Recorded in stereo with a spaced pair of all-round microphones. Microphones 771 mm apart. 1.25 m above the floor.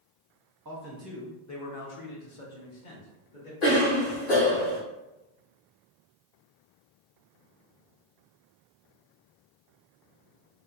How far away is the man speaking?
About 0.5 m.